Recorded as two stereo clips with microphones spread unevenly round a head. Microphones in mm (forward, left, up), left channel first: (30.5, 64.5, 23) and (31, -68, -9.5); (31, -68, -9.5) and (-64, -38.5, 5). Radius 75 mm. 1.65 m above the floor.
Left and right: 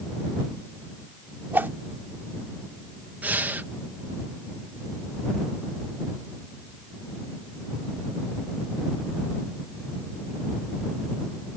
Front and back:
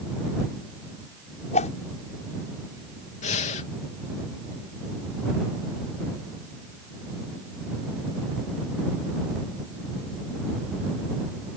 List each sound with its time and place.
1.5 s a whoosh: 10° right
3.2 s breathing: 10° right